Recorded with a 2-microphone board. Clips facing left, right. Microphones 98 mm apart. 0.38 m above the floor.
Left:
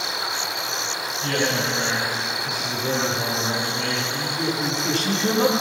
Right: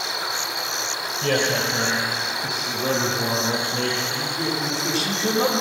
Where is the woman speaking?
5° right (ahead or behind), 8.5 m.